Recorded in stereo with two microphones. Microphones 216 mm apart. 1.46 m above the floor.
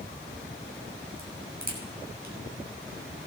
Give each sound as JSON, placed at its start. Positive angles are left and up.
{"t": 1.2, "sound": "a crack", "side_deg": -45, "distance_m": 5.5}